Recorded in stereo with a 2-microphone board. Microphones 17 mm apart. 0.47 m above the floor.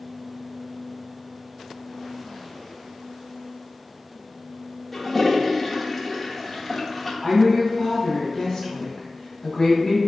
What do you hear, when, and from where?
4.9 s a toilet flushing: 15° left (ahead or behind), 0.6 m
7.2 s a woman speaking: 25° left (ahead or behind), 1.1 m